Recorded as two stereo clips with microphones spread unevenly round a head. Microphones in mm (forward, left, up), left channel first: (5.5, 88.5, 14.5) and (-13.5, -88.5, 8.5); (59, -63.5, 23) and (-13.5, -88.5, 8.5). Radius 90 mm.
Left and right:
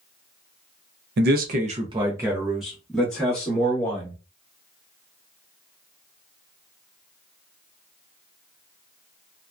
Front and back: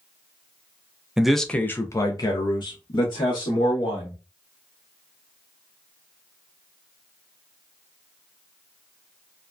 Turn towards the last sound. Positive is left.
turn(degrees=10)